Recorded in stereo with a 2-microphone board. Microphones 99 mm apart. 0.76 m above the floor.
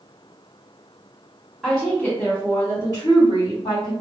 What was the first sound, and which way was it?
A woman speaking, 5° right (ahead or behind).